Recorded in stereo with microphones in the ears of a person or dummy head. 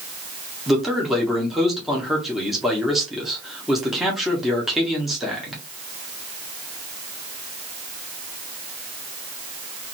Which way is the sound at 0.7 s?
5° right (ahead or behind).